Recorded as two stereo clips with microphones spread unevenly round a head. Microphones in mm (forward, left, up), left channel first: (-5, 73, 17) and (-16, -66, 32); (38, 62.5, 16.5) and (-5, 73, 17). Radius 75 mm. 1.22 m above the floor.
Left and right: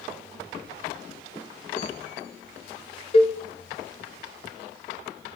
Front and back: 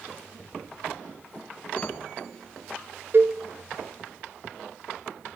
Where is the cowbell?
130° left, 0.9 m.